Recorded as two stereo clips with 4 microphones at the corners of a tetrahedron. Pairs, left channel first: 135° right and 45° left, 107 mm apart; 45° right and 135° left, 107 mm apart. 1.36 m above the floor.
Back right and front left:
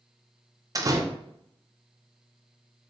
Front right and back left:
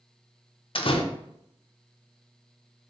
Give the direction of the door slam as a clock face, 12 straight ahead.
12 o'clock.